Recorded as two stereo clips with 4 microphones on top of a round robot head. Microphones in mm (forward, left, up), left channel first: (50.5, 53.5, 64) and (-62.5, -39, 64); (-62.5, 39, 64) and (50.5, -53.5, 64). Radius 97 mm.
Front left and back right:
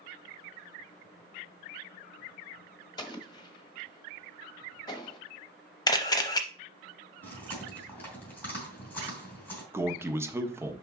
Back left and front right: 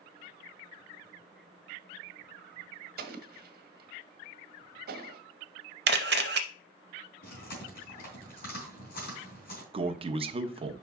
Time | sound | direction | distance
3.0 | an explosion | 25° right | 1.2 m
5.9 | a camera shutter | 25° right | 0.5 m
7.2 | chewing | 120° left | 3.5 m
9.7 | a man speaking | 75° right | 1.0 m